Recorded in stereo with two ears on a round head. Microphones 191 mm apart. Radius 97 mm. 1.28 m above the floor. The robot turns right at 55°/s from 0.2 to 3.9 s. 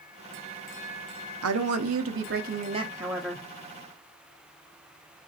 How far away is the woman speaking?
About 0.7 m.